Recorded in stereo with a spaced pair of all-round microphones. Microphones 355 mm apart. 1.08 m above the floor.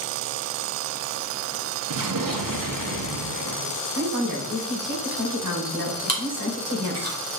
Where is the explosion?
65° right (ahead or behind), 0.8 m.